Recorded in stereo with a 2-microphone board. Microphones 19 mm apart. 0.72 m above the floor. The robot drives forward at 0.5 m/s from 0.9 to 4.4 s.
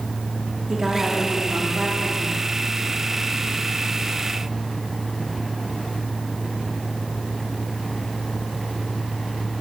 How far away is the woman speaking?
About 1.7 m.